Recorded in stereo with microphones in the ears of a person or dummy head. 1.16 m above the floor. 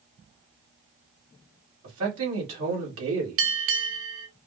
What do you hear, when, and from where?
1.8 s a man speaking: 75° right (ahead or behind), 2.5 m
3.4 s a bell: 70° right (ahead or behind), 0.7 m